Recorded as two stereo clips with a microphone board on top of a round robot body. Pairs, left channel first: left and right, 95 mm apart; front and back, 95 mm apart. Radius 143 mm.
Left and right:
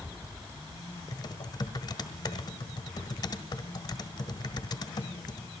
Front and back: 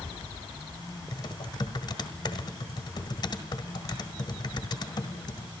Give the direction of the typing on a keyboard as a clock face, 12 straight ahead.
11 o'clock.